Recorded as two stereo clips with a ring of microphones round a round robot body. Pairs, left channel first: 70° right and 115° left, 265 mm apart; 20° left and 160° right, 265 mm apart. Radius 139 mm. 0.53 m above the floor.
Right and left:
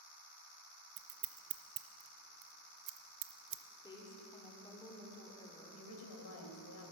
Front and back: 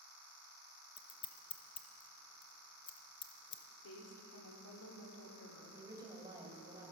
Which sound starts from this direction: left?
Scissors, at 1.0 s.